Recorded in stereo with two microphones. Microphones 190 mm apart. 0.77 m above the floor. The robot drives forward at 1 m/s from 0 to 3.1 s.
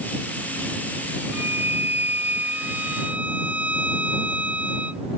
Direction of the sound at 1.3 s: 10° right (ahead or behind).